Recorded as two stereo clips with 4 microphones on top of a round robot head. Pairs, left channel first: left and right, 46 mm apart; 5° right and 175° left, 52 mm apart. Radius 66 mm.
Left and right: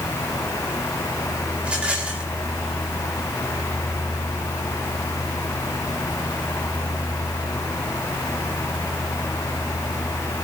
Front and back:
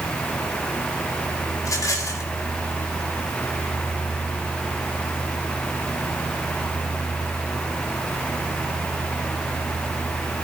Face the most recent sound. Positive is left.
turn(degrees=-20)